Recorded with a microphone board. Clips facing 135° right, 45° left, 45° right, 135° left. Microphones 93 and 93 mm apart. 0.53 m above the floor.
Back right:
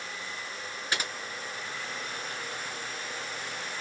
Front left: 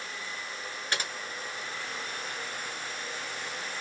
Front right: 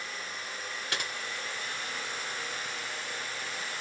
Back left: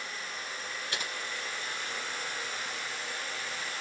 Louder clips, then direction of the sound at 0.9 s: Back right 1 dB, front right 3 dB; 55° right.